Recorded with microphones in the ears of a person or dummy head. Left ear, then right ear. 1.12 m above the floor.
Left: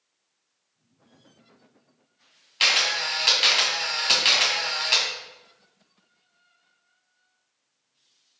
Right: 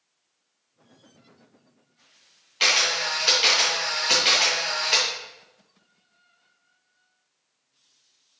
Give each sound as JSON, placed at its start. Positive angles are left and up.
{"t": 2.6, "sound": "a camera shutter", "side_deg": 20, "distance_m": 2.5}